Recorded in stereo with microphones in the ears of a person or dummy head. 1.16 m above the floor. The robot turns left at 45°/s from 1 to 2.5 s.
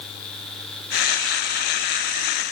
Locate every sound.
Only background noise.